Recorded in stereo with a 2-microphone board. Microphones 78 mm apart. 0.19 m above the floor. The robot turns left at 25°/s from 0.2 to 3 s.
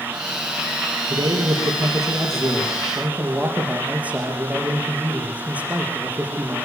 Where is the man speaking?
115° right, 4.5 m; by 6.7 s 160° right, 4.5 m.